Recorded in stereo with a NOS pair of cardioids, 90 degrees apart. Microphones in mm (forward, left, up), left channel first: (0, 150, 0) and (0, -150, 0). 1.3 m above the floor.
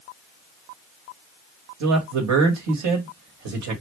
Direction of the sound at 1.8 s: 65° right.